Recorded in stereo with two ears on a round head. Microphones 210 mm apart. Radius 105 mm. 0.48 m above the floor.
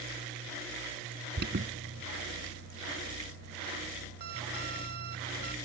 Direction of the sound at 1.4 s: 45° right (ahead or behind).